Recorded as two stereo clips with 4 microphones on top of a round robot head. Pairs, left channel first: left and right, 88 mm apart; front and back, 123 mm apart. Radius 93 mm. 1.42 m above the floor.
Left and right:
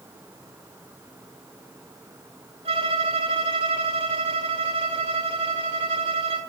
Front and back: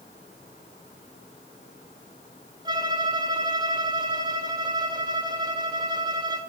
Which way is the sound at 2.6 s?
115° right.